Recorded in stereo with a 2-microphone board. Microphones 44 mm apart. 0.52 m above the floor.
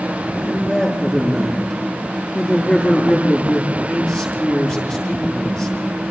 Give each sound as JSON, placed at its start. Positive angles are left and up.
{"t": 0.3, "sound": "a man speaking", "side_deg": 20, "distance_m": 9.5}